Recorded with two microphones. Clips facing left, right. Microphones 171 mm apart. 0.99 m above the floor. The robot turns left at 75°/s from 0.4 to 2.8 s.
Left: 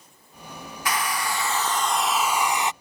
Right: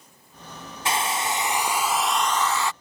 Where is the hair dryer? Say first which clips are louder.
Right 1 dB; 25° right (ahead or behind); by 2.7 s 20° left (ahead or behind).